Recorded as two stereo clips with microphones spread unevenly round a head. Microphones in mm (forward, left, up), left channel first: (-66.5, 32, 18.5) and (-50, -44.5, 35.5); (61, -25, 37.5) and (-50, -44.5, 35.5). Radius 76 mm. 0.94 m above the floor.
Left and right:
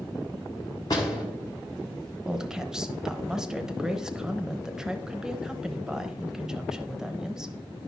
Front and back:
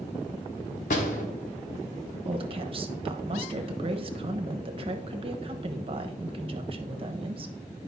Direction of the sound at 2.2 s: 170° right.